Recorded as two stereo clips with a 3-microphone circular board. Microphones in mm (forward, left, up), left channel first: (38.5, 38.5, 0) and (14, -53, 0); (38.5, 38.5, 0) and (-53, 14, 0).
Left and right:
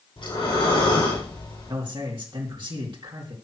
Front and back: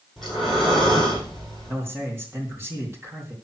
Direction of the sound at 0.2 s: 105° left.